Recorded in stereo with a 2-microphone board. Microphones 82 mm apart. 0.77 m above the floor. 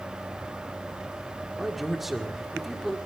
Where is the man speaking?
5° right (ahead or behind), 1.6 m.